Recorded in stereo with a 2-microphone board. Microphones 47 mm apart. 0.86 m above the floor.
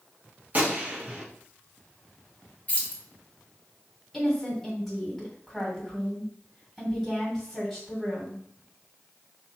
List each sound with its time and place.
0.5 s a gunshot: 35° right (ahead or behind), 1.0 m
2.7 s keys jangling: 25° left (ahead or behind), 0.9 m
4.1 s a woman speaking: centre (ahead or behind), 2.5 m